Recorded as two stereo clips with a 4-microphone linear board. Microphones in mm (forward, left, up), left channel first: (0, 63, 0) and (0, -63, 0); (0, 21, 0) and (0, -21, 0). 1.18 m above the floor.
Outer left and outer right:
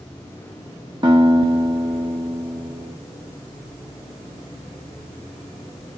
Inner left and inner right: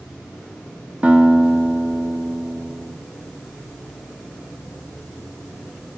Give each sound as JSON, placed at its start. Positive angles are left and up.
{"t": 1.0, "sound": "a guitar", "side_deg": -35, "distance_m": 1.6}